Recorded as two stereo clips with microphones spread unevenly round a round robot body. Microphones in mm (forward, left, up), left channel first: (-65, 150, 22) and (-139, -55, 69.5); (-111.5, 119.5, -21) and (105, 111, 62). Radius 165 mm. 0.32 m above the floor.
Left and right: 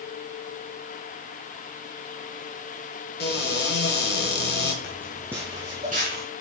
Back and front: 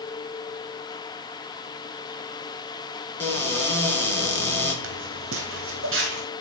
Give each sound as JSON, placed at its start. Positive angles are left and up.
{"t": 3.2, "sound": "a cupboard door", "azimuth_deg": 105, "distance_m": 3.0}
{"t": 4.8, "sound": "footsteps", "azimuth_deg": -15, "distance_m": 0.8}